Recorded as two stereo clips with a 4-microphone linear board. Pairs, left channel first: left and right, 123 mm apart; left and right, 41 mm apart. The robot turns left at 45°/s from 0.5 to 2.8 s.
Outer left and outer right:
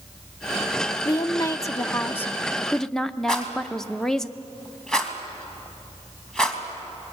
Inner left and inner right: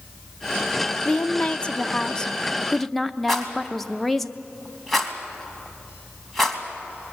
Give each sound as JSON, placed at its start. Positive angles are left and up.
{"t": 1.1, "sound": "a woman speaking", "azimuth_deg": 90, "distance_m": 0.6}
{"t": 3.3, "sound": "a rattle", "side_deg": 5, "distance_m": 2.5}